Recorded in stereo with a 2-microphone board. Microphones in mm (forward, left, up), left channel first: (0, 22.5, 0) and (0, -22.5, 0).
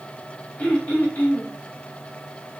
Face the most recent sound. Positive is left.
turn(degrees=40)  # may be behind; listen again after turning